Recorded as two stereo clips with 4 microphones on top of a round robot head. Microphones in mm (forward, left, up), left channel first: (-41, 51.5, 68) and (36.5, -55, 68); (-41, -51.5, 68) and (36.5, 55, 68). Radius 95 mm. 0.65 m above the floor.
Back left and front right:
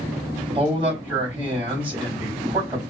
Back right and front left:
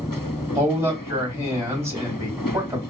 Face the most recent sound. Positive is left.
turn(degrees=-10)